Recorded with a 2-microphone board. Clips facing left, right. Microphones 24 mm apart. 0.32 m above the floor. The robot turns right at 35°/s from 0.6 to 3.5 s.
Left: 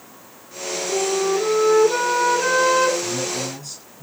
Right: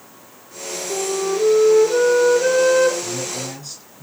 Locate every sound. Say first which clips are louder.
0.9 s a flute: left 1 dB; 45° left, 4.5 m; by 2.9 s 120° left, 4.5 m
3.0 s a man speaking: left 2 dB; 10° left (ahead or behind), 3.5 m; by 4.0 s 10° right (ahead or behind), 3.5 m